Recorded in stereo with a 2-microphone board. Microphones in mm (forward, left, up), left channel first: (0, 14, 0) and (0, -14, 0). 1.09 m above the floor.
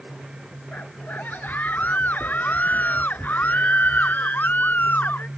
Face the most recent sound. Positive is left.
turn(degrees=90)